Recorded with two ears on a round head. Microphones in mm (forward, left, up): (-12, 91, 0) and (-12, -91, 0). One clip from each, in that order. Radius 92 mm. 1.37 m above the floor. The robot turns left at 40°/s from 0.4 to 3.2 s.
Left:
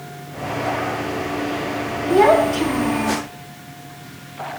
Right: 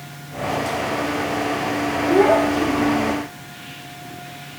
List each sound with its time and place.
2.1 s a child speaking: 150° left, 2 m; by 3.2 s 110° left, 2 m